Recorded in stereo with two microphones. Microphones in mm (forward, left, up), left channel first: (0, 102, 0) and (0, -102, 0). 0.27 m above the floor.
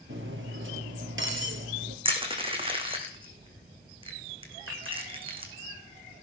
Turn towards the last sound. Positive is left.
turn(degrees=-70)  # may be behind; listen again after turning